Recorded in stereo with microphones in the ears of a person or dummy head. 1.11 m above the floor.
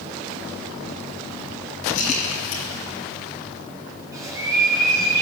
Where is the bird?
15° right (ahead or behind), 5.5 m.